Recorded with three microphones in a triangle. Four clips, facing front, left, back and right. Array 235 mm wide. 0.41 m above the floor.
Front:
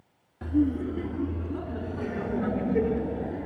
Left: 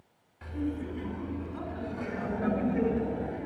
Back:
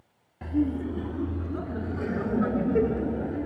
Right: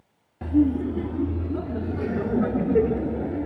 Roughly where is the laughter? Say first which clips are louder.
Right 13 dB, front 2 dB; right.